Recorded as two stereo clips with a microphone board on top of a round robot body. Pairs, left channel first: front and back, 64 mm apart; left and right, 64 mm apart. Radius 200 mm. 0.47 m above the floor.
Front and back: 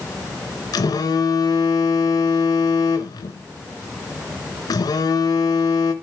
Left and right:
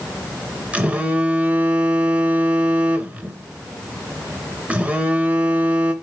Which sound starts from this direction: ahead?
A phone buzzing, at 0.7 s.